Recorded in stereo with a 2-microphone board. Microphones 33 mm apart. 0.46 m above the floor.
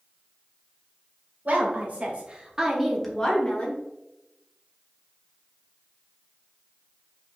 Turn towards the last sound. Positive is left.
turn(degrees=45)  # may be behind; listen again after turning